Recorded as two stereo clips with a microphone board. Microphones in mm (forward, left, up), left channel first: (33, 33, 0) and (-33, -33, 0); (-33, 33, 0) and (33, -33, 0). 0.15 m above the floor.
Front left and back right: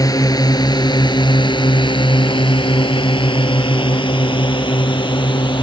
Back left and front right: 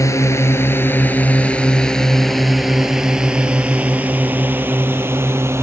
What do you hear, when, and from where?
0.0 s a drone: 85° left; by 5.6 s 15° left